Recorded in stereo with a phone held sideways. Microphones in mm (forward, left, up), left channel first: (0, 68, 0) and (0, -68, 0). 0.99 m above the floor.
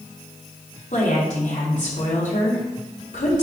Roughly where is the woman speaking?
Left.